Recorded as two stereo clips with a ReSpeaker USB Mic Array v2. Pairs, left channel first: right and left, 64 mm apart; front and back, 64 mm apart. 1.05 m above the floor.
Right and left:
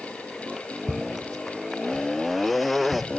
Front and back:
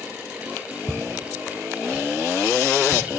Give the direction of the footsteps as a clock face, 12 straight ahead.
9 o'clock.